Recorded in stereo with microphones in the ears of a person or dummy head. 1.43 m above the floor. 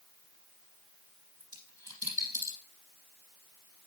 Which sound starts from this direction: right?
A dropped coin, at 1.4 s.